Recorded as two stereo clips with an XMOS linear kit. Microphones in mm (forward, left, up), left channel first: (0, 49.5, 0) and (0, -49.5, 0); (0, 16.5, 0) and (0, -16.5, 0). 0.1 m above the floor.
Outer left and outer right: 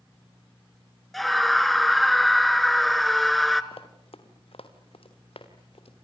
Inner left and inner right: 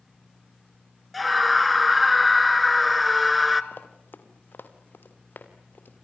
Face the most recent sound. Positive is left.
turn(degrees=70)  # may be behind; listen again after turning